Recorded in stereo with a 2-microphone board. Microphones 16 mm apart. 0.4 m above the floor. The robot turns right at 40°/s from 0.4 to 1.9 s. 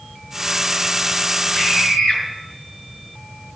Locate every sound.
1.5 s a scream: 45° left (ahead or behind), 7 m; by 2.2 s 60° left (ahead or behind), 7 m